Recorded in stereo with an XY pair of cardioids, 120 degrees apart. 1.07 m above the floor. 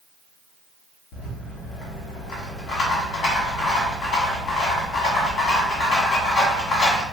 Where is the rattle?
60° left, 1.5 m.